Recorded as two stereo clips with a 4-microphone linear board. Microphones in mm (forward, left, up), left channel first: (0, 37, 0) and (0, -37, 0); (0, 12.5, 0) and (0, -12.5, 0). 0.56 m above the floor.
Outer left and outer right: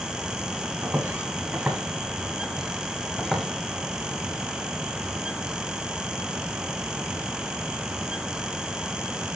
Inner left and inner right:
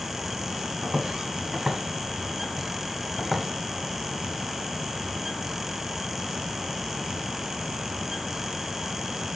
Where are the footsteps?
25° right (ahead or behind), 6 m; by 3.5 s 5° left (ahead or behind), 4 m.